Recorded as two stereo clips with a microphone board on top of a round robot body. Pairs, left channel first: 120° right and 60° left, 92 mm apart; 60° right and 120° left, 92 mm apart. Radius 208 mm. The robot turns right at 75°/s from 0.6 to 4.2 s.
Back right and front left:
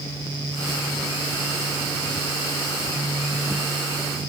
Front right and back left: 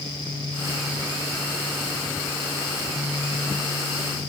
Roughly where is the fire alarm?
I don't hear a fire alarm.